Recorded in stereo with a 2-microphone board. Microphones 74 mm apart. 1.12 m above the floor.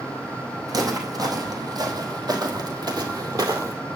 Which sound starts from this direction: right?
Footsteps, at 0.7 s.